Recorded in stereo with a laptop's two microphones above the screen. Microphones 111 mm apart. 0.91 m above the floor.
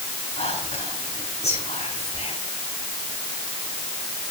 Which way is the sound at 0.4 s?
85° left.